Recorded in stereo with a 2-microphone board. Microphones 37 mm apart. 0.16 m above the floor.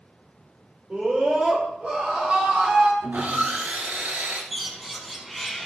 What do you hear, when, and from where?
0.9 s a scream: 40° right (ahead or behind), 5 m; by 2.9 s 45° right (ahead or behind), 4 m
3.0 s sawing: 60° right (ahead or behind), 1.8 m
4.5 s a bird: centre (ahead or behind), 1.2 m